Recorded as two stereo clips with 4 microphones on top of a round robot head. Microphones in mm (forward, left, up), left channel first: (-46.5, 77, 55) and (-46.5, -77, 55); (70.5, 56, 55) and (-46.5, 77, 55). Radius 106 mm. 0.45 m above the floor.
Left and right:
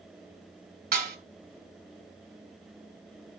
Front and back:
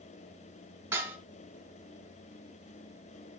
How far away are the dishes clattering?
About 2.0 m.